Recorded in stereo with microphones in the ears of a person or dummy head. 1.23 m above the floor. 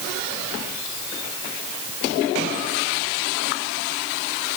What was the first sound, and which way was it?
Only background noise.